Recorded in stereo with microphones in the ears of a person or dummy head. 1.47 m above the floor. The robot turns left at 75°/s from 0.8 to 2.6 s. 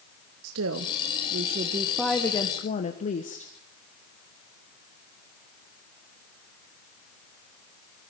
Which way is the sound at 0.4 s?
85° right.